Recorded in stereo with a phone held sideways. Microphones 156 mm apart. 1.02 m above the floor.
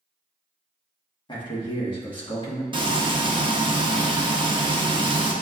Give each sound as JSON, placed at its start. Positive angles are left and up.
{"t": 1.3, "sound": "a man speaking", "side_deg": 30, "distance_m": 1.2}
{"t": 2.7, "sound": "frying", "side_deg": -30, "distance_m": 0.5}